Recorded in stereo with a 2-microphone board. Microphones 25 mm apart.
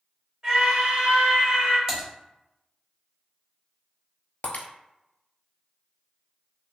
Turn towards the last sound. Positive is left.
turn(degrees=70)  # may be behind; listen again after turning